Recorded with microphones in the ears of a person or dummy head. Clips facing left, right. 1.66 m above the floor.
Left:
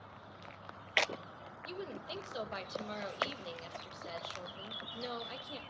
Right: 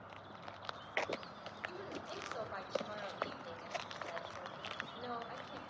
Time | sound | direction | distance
1.6 | a woman speaking | 40° left (ahead or behind) | 2 m